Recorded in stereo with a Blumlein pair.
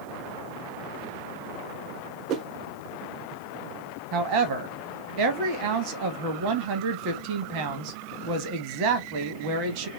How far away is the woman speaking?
About 1.2 m.